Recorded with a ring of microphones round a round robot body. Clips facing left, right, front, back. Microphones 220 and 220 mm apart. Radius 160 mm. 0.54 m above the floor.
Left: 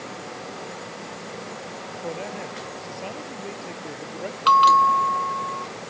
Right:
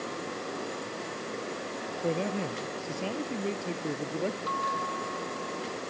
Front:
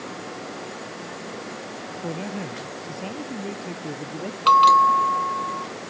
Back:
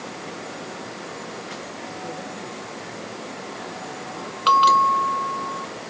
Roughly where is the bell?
Left.